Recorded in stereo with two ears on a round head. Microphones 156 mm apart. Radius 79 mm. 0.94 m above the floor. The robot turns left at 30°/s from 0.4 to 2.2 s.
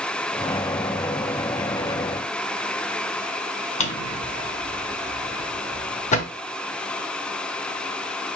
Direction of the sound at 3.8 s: 40° left (ahead or behind).